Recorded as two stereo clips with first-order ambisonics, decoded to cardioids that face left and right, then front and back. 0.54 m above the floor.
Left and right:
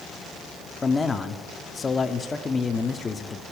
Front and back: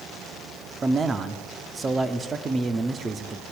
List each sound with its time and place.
0.8 s a man speaking: 140° left, 0.7 m